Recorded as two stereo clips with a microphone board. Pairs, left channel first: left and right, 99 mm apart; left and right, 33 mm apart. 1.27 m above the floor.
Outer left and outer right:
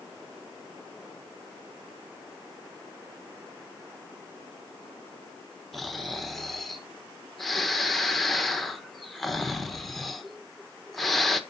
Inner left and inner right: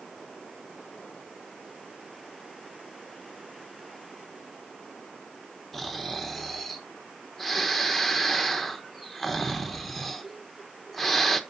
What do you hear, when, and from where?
5.7 s snoring: centre (ahead or behind), 1.0 m